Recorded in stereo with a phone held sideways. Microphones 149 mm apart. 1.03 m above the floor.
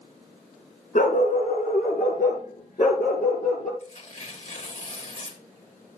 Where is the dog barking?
65° left (ahead or behind), 2.5 m.